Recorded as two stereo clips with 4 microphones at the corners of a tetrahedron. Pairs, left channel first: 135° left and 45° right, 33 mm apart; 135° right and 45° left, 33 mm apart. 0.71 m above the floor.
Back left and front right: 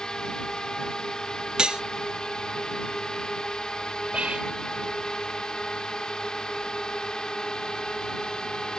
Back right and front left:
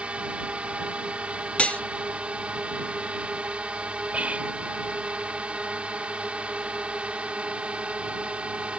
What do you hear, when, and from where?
0.0 s a drone: 75° left
1.6 s cutlery clinking: 105° right
4.1 s whispering: 10° left